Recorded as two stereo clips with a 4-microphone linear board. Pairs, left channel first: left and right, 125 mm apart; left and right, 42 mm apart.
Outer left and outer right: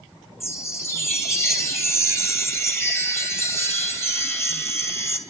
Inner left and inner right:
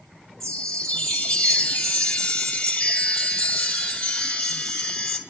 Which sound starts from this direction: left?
A chime, at 0.4 s.